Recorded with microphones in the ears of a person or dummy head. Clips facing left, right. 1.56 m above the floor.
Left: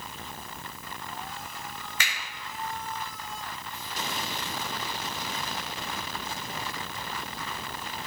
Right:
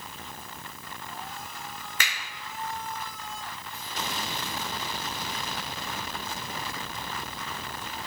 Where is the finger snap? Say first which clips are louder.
Right 1 dB; 50° right (ahead or behind), 1.8 m.